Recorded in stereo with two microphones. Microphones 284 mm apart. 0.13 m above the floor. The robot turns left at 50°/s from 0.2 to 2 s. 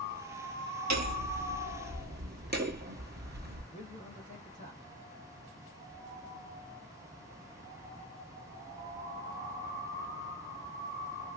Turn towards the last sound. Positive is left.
turn(degrees=25)  # may be behind; listen again after turning